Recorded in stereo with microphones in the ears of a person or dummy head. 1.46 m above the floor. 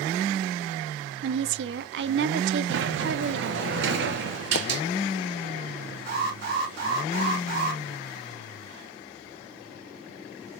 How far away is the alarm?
About 3 m.